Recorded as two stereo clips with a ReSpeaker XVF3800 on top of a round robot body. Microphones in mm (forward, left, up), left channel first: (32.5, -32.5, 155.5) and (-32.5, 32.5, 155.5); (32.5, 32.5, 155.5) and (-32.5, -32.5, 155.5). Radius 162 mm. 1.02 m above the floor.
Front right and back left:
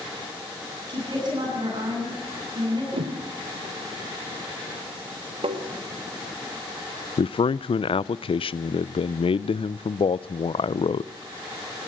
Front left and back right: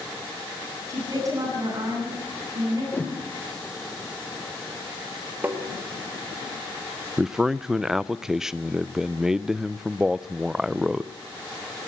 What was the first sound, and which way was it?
A woman speaking, 170° left.